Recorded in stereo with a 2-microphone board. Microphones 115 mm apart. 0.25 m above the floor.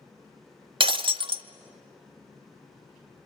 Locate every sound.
0.8 s breaking glass: 45° right (ahead or behind), 0.8 m